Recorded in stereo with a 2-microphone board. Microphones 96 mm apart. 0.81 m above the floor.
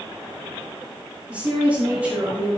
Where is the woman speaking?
20° right (ahead or behind), 5.5 m; by 2.6 s 25° right (ahead or behind), 5.5 m.